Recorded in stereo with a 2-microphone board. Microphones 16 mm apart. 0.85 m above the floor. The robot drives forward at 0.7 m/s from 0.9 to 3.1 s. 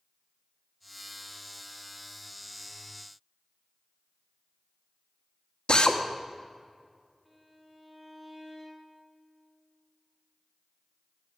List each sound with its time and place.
5.7 s a drill: 70° left (ahead or behind), 1.3 m
7.2 s a violin: 10° right (ahead or behind), 3 m